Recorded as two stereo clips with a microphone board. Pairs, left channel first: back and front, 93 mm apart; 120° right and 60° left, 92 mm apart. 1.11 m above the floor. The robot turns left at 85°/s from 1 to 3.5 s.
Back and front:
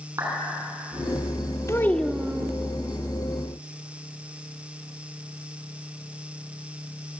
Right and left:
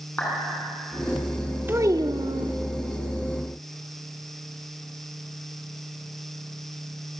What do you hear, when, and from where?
0.2 s a clap: 50° right, 8 m
1.7 s a child speaking: 125° left, 1.3 m; by 2.5 s 55° left, 1.3 m